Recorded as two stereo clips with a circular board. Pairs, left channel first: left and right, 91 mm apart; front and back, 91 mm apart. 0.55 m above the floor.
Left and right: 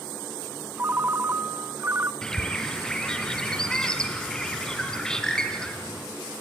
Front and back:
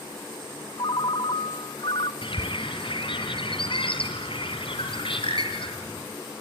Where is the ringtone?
25° right, 0.6 m.